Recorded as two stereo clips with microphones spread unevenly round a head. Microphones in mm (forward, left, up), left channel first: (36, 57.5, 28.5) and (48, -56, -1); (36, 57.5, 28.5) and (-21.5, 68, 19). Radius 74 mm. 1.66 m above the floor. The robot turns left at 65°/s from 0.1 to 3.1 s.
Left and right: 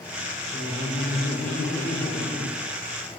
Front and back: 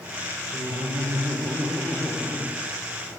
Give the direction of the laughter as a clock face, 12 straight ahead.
6 o'clock.